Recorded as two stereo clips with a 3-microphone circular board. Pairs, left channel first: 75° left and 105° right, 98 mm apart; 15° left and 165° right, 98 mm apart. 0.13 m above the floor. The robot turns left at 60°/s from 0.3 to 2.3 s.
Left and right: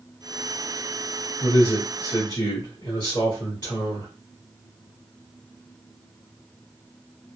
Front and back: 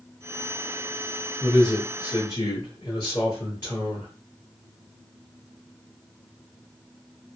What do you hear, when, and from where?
1.4 s a man speaking: 100° left, 1.9 m; by 4.1 s 45° left, 1.9 m